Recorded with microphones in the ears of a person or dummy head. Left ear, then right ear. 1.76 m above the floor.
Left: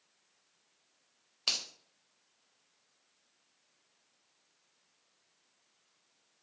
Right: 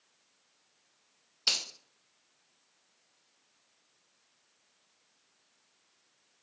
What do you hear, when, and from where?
1.5 s a finger snap: 10° right (ahead or behind), 0.7 m